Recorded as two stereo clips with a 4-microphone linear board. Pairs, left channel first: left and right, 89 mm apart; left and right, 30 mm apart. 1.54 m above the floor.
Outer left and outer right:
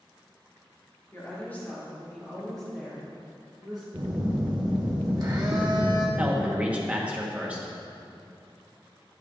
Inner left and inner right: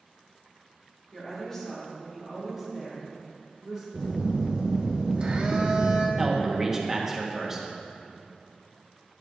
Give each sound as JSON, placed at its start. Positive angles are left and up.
{"t": 1.1, "sound": "a woman speaking", "side_deg": 25, "distance_m": 2.5}
{"t": 3.9, "sound": "a phone buzzing", "side_deg": -45, "distance_m": 1.3}
{"t": 6.2, "sound": "a man speaking", "side_deg": -15, "distance_m": 1.2}